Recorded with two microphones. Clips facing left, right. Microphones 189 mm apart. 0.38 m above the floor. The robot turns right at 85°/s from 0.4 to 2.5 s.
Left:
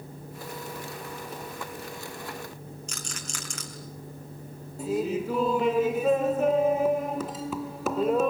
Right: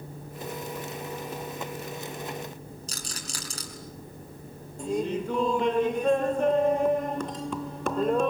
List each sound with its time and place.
2.9 s a rattle: 35° right (ahead or behind), 5 m
4.8 s laughter: 5° left (ahead or behind), 0.8 m